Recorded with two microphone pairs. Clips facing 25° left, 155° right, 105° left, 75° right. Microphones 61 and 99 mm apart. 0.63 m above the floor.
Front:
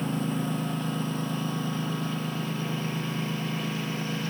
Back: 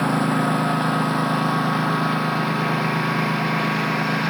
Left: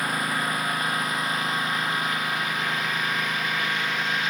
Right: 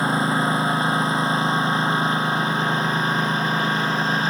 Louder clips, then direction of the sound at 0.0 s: Back 9 dB, right 6 dB; 140° right.